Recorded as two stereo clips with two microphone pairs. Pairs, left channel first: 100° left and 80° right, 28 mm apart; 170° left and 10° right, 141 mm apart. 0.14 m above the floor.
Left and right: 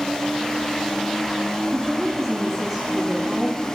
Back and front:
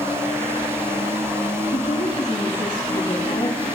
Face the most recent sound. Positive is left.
turn(degrees=-140)